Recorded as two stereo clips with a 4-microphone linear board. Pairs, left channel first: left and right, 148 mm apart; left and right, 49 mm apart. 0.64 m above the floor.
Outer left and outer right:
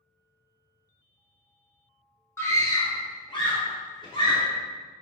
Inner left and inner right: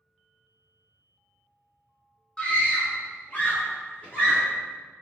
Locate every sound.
2.4 s a scream: 15° left (ahead or behind), 0.7 m; by 4.5 s 35° left (ahead or behind), 1.4 m